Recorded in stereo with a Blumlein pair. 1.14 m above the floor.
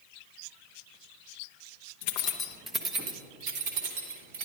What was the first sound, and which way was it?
Keys jangling, 50° left.